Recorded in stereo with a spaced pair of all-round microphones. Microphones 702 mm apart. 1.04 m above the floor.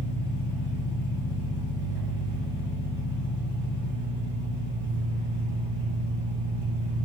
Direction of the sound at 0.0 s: 50° left (ahead or behind).